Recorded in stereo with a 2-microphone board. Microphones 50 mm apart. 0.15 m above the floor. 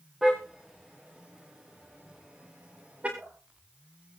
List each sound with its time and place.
0.2 s a car horn: 10° right (ahead or behind), 7 m; by 3.1 s 30° right (ahead or behind), 7.5 m
3.2 s dripping: 40° right (ahead or behind), 5.5 m